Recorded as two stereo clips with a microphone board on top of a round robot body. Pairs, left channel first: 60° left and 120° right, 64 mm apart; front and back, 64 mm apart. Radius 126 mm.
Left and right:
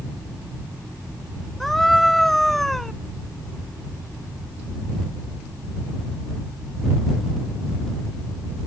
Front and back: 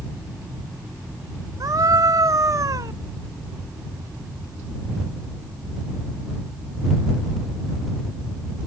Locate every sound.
1.6 s a scream: 145° left